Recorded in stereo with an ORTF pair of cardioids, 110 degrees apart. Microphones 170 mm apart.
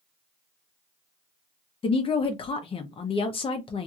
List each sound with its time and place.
1.8 s a woman speaking: 35° left, 0.8 m